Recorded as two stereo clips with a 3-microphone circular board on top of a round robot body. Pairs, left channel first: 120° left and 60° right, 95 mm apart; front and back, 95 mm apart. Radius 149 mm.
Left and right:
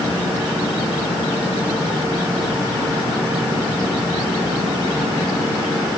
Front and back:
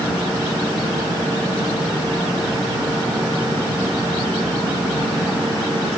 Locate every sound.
Only background noise.